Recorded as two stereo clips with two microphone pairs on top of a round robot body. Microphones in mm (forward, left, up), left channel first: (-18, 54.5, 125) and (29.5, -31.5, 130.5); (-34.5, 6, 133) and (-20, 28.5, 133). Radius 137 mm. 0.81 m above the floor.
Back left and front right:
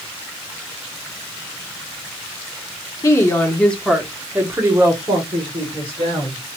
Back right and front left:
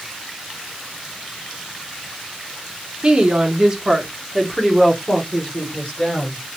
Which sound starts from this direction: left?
A woman speaking, at 3.0 s.